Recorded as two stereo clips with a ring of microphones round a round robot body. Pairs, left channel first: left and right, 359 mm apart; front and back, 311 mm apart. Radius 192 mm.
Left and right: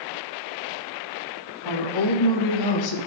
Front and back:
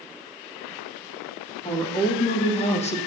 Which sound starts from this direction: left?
A woman speaking, at 1.6 s.